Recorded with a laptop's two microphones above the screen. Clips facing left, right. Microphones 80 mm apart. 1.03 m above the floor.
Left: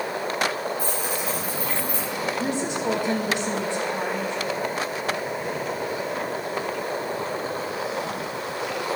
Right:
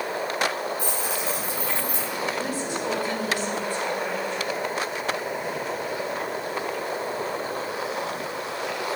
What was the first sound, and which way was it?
Keys jangling, 80° right.